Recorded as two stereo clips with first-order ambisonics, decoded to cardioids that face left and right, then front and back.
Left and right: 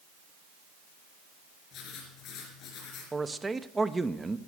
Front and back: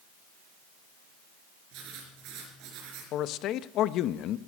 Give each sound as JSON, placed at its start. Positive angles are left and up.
{"t": 1.7, "sound": "writing", "azimuth_deg": 140, "distance_m": 3.5}
{"t": 3.1, "sound": "a man speaking", "azimuth_deg": -15, "distance_m": 0.5}